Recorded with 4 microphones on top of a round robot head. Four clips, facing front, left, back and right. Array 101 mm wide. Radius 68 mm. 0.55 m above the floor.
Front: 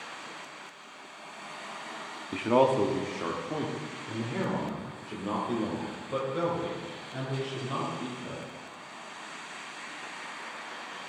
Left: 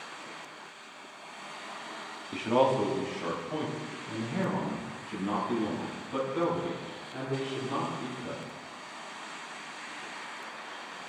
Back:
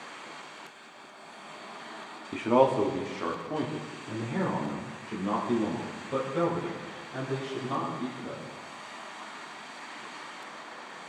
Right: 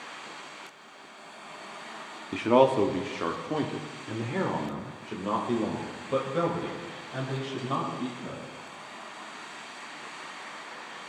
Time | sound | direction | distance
2.3 | a man speaking | 85° right | 0.8 m